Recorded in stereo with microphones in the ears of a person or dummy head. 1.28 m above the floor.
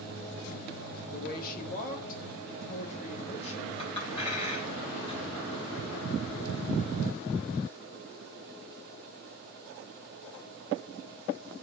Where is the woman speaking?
60° left (ahead or behind), 3 m; by 3.7 s 40° left (ahead or behind), 5.5 m.